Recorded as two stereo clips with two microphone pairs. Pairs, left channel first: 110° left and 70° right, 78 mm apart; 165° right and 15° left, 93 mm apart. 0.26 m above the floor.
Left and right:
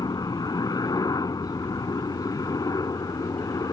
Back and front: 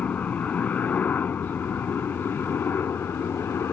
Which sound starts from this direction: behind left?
A helicopter, at 0.0 s.